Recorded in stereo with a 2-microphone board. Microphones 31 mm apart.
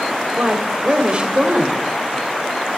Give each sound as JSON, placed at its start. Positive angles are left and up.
{"t": 0.4, "sound": "a woman speaking", "side_deg": -45, "distance_m": 1.4}